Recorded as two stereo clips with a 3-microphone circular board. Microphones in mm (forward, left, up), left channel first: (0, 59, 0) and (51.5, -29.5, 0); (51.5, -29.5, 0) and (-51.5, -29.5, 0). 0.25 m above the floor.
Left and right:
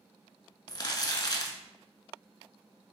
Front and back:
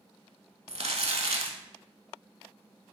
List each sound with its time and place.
0.7 s crumpling: 165° left, 0.5 m